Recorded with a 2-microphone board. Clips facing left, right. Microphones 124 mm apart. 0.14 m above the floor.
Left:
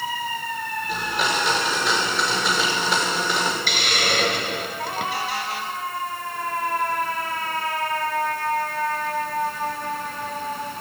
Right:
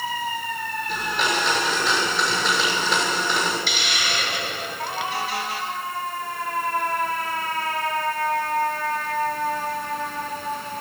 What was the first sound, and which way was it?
A blender, centre (ahead or behind).